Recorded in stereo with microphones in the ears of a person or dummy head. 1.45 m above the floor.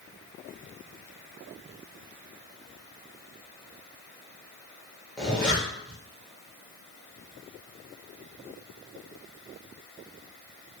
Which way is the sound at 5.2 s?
5° left (ahead or behind).